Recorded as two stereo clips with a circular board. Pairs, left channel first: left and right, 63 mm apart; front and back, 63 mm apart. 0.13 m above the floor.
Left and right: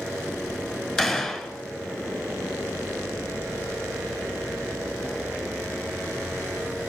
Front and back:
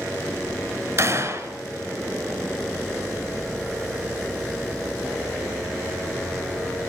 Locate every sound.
1.0 s a gunshot: 160° left, 1.3 m